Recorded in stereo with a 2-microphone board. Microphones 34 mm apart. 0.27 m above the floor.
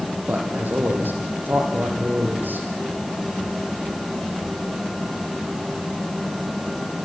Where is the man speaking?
75° right (ahead or behind), 9 m; by 2.7 s 85° right, 10 m.